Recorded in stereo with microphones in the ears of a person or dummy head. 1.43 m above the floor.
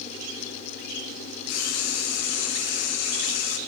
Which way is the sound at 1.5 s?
80° left.